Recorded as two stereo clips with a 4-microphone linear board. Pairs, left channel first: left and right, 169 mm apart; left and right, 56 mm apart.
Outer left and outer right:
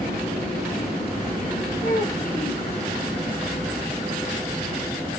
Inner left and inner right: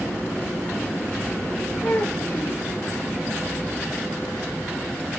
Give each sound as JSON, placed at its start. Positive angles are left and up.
{"t": 1.8, "sound": "a child speaking", "side_deg": 65, "distance_m": 2.0}